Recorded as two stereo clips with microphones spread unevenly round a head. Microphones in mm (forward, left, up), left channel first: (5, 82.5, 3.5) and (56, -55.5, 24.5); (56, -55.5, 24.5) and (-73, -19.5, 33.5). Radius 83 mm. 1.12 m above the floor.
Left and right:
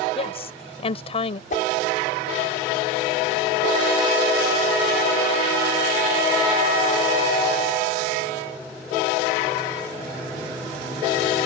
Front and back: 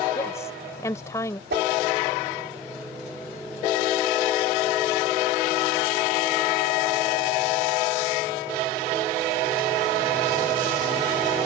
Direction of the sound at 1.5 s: 160° left.